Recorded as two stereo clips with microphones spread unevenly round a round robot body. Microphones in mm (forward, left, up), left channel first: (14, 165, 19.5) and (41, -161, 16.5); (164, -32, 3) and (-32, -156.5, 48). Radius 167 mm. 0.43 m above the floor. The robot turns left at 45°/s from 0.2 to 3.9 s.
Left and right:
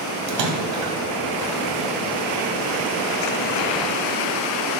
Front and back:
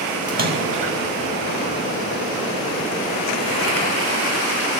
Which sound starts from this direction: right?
A splash, at 0.3 s.